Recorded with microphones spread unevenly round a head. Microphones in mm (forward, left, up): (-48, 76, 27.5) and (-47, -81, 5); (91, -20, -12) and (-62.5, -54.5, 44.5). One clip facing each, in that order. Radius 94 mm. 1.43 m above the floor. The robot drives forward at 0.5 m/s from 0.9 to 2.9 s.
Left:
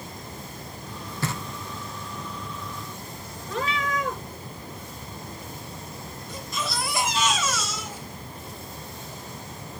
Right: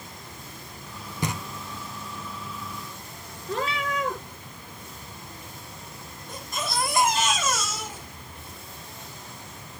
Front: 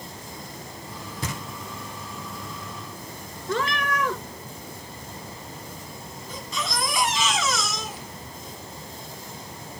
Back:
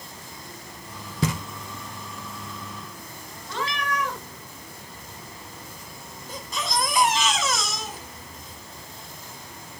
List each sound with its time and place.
1.2 s knocking: 165° right, 1.2 m
3.5 s a cat meowing: 30° right, 1.8 m
6.3 s a baby crying: 125° right, 6 m